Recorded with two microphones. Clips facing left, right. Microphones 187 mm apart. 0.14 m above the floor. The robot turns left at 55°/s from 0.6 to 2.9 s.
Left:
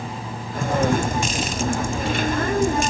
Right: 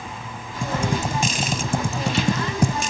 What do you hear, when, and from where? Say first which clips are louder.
0.6 s typing on a keyboard: left 4 dB; centre (ahead or behind); by 2.8 s 60° right (ahead or behind)